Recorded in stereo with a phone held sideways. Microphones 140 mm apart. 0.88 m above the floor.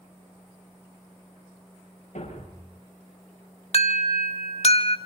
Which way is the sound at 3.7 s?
55° left (ahead or behind).